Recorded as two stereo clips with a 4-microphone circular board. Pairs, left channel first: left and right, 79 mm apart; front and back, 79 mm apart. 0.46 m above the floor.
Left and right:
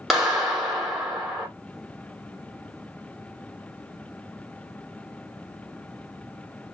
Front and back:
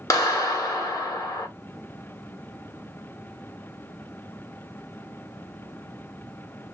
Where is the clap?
5° right, 1.3 m.